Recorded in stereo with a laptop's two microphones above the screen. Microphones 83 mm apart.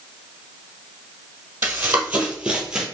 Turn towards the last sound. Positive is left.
turn(degrees=-5)  # may be behind; listen again after turning